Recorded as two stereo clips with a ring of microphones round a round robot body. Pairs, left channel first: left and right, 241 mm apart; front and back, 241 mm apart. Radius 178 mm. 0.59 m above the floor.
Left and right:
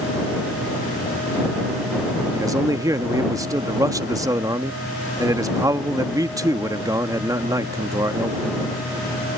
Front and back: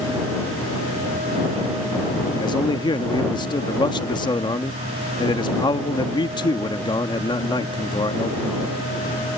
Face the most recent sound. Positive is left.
turn(degrees=-35)